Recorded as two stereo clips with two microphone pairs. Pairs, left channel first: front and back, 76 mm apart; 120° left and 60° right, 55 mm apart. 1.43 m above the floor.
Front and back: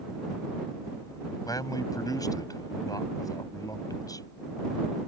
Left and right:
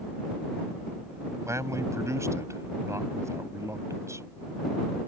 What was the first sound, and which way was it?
A man speaking, 35° right.